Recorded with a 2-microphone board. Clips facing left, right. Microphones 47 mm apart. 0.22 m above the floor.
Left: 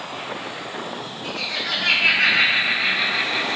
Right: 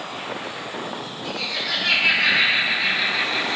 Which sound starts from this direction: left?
Laughter, at 1.2 s.